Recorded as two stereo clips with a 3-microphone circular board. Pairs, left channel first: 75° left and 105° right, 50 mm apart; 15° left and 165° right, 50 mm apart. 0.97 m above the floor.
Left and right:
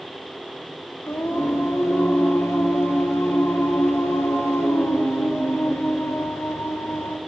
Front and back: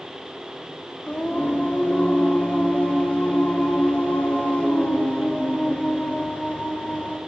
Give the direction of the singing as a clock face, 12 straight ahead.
9 o'clock.